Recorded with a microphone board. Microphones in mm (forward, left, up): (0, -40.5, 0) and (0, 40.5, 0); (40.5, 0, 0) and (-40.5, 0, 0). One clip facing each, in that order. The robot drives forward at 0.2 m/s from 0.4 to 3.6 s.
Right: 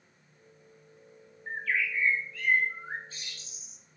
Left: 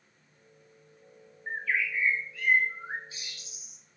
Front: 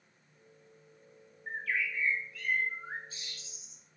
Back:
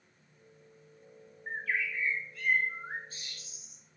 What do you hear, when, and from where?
1.5 s a bird: 140° left, 0.6 m; by 3.8 s 165° left, 0.9 m